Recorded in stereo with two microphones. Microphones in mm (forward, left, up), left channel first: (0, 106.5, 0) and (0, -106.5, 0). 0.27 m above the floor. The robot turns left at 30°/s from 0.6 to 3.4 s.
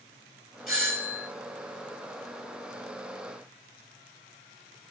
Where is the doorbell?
5° right (ahead or behind), 2.0 m; by 1.3 s 10° left (ahead or behind), 2.0 m.